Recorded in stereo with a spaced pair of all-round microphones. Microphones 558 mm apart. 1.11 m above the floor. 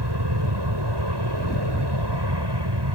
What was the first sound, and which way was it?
An aircraft, 45° right (ahead or behind).